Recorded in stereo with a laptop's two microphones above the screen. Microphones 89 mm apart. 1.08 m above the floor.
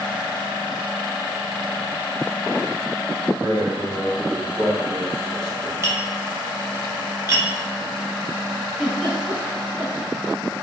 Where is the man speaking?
50° right (ahead or behind), 0.8 m; by 5.7 s centre (ahead or behind), 1.6 m.